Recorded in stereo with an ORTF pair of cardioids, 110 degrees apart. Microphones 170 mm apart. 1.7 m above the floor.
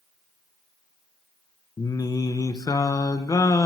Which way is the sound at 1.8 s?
20° left.